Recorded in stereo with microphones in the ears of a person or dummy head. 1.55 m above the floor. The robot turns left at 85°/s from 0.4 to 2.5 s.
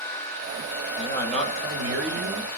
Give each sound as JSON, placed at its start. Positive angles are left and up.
{"t": 1.0, "sound": "a man speaking", "azimuth_deg": 35, "distance_m": 1.1}